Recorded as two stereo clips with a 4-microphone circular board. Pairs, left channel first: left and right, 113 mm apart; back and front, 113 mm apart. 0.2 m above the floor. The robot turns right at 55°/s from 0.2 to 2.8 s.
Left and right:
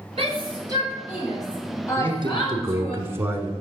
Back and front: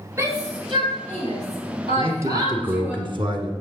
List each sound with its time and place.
0.2 s a shout: 65° right, 5.5 m; by 3.0 s 80° left, 5.5 m
2.0 s a man speaking: 70° right, 1.6 m; by 3.5 s 25° right, 1.6 m